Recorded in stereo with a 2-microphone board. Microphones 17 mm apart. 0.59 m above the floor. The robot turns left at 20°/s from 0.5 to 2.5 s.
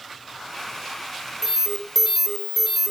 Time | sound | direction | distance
1.4 | an alarm | 30° right (ahead or behind) | 1.9 m